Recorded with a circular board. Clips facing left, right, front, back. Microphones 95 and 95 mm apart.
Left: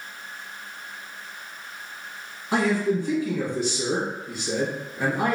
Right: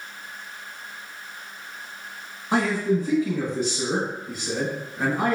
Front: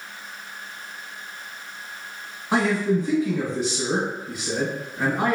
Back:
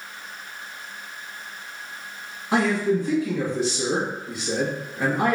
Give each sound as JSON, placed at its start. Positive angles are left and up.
{"t": 2.5, "sound": "a man speaking", "azimuth_deg": -50, "distance_m": 1.2}